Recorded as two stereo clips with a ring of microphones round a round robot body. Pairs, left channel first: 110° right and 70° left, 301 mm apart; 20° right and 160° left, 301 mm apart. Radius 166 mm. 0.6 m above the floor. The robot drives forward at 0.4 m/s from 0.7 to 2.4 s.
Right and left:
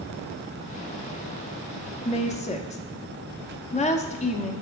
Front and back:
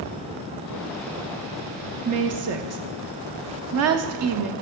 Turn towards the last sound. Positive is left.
turn(degrees=-175)